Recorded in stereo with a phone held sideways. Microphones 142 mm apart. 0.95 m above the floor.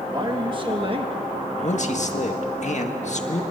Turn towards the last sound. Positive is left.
turn(degrees=55)  # may be behind; listen again after turning